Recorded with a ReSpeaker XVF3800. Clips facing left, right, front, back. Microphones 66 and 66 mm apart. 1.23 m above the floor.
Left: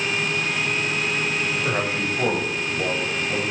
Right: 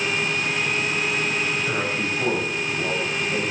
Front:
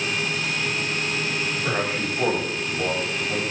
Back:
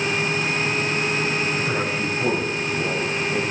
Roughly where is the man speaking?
Ahead left.